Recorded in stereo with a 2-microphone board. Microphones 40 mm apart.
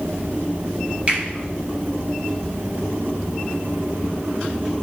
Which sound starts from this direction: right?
A finger snap, at 1.1 s.